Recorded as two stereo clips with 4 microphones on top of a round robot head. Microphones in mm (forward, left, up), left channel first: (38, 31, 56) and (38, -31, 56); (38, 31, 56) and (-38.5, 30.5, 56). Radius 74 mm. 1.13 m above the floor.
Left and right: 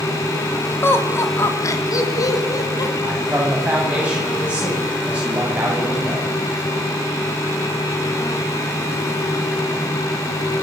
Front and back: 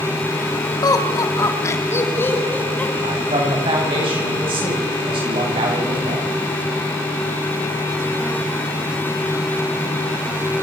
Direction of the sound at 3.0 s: 165° right.